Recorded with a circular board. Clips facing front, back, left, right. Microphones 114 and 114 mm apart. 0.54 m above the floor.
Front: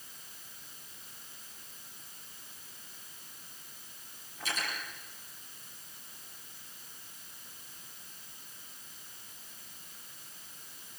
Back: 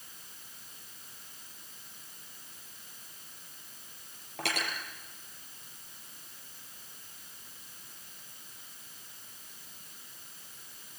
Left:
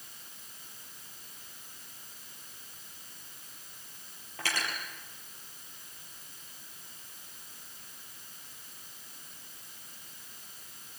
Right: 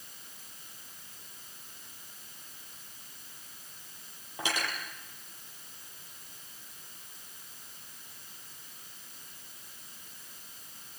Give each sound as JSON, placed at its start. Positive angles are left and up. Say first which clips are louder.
{"t": 4.4, "sound": "cutlery clinking", "louder": "back 3 dB, right 2 dB", "azimuth_deg": -165, "distance_m": 8.5}